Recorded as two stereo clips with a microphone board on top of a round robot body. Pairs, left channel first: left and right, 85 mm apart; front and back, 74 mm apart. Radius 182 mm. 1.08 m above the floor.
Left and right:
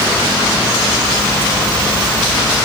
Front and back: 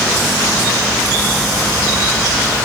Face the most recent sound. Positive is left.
No sound to turn to.